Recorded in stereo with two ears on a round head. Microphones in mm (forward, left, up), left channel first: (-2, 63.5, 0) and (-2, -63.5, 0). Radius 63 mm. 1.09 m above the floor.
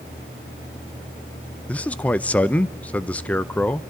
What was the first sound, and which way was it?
A man speaking, 10° left (ahead or behind).